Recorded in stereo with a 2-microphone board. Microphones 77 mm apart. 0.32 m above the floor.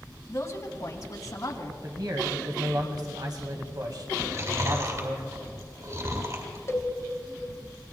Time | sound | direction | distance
0.3 | a woman speaking | 35° left (ahead or behind) | 2 m
1.8 | a man speaking | 55° right (ahead or behind) | 1.8 m
4.2 | chewing | 50° right (ahead or behind) | 4.5 m
6.7 | a cowbell | 35° left (ahead or behind) | 0.9 m